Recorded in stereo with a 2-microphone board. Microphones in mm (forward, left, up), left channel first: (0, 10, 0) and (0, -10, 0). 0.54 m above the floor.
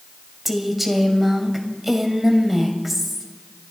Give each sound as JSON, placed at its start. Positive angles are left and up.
{"t": 0.5, "sound": "a woman speaking", "side_deg": -5, "distance_m": 2.0}